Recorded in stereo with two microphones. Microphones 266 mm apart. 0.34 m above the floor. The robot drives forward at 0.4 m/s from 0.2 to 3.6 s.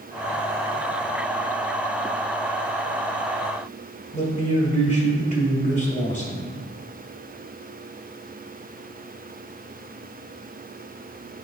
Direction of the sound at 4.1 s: 25° left (ahead or behind).